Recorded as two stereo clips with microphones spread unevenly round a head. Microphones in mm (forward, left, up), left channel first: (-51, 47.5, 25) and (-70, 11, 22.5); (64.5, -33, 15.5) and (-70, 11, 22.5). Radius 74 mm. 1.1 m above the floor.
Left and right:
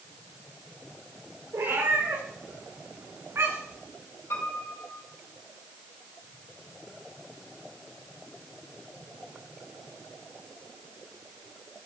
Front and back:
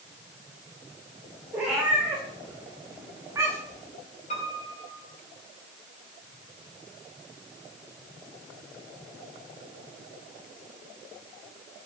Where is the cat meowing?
115° right, 6.5 m; by 3.8 s 130° right, 7.5 m.